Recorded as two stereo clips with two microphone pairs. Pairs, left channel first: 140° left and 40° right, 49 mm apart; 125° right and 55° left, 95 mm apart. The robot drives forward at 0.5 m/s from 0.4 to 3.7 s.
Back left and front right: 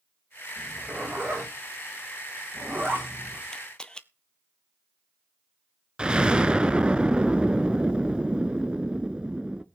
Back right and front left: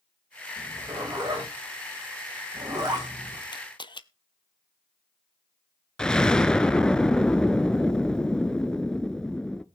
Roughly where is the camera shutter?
Behind right.